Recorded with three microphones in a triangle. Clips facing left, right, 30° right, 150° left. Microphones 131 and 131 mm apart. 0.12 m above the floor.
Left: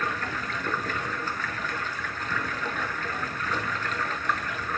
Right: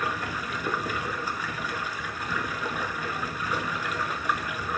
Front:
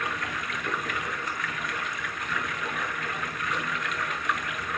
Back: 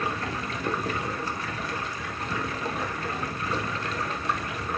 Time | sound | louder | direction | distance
0.0 | running water | even, back 3 dB | 165° right | 0.9 m